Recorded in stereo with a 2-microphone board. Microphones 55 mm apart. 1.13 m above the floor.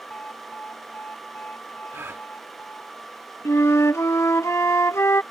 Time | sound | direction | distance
0.1 | an alarm | 30° left (ahead or behind) | ?
1.9 | a gasp | 45° right (ahead or behind) | ?
3.5 | a flute | 60° left (ahead or behind) | ?